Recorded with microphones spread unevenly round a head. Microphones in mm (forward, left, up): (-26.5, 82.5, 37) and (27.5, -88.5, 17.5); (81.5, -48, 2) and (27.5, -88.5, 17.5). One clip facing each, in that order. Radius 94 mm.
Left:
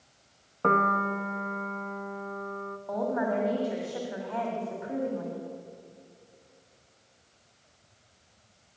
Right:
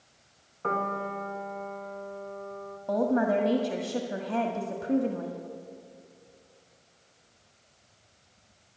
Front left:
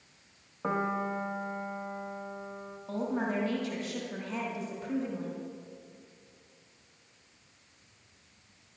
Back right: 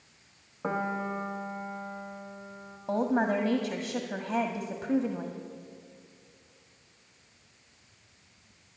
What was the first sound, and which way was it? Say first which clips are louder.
A piano: left 4 dB, even; 120° left.